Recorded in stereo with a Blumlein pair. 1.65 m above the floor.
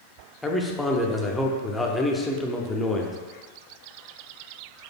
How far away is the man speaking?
About 0.6 m.